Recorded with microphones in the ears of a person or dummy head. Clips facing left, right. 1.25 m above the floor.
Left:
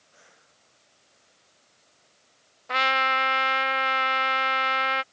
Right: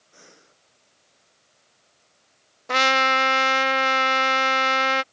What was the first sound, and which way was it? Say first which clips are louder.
Breathing: right 8 dB; 60° right (ahead or behind).